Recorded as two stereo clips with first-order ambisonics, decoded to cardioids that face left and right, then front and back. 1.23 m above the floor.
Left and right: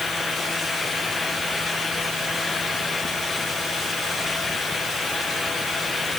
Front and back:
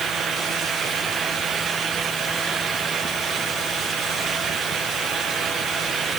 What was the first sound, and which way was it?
Only background noise.